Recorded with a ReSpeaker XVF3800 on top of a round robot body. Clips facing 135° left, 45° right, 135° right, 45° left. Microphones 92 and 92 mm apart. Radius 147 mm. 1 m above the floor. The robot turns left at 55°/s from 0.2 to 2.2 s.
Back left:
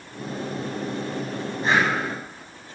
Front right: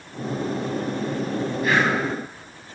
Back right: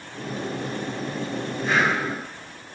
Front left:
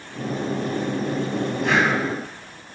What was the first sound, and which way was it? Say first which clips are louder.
Breathing: even, front left 1 dB; 70° left.